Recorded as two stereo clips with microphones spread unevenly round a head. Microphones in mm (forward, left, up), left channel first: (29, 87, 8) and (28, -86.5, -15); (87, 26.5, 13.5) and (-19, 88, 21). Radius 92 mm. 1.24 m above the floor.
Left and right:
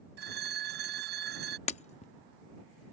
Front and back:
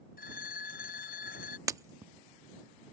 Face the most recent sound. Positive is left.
turn(degrees=100)